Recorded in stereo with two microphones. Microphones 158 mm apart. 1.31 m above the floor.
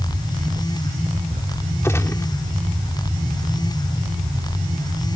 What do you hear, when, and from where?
1.8 s a gunshot: 15° left (ahead or behind)